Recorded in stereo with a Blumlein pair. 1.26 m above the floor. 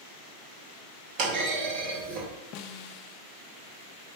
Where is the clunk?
40° right, 2.5 m.